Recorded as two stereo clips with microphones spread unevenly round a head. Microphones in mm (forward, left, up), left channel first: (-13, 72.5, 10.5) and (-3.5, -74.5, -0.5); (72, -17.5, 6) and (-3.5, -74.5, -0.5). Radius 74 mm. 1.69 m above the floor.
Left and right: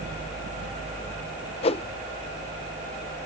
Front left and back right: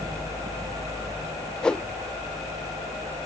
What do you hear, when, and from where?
1.6 s a whoosh: 115° left